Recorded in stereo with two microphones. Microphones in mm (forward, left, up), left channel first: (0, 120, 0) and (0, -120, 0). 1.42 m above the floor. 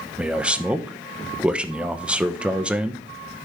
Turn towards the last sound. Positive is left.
turn(degrees=-5)  # may be behind; listen again after turning